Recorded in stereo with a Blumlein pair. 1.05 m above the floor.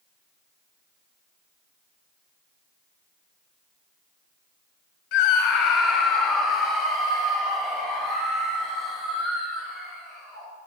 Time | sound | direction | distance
5.1 | a scream | 45° left | 0.7 m